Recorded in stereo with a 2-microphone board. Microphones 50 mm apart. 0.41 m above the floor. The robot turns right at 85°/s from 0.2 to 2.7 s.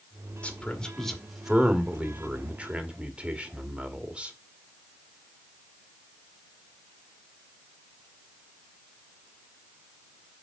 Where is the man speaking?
25° left (ahead or behind), 1.5 m; by 4.3 s 25° right (ahead or behind), 1.5 m.